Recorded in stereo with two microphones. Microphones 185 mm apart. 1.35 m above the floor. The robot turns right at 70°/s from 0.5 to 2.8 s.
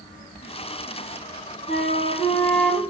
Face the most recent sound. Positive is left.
turn(degrees=-175)